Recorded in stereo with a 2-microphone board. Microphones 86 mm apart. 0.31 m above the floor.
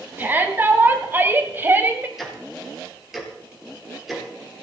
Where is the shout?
25° right (ahead or behind), 2.5 m.